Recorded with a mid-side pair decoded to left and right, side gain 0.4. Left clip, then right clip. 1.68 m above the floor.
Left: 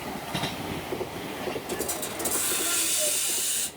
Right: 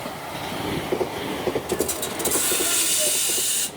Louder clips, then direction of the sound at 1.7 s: Right 6 dB; 40° right.